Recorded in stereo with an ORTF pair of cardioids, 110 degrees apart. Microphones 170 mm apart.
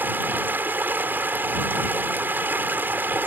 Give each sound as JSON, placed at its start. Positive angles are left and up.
{"t": 0.0, "sound": "running water", "azimuth_deg": -10}